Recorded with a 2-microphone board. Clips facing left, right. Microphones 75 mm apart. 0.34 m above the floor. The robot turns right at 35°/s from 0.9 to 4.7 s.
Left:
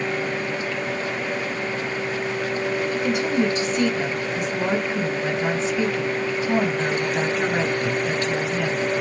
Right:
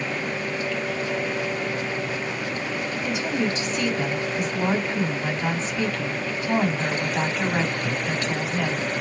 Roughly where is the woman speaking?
Left.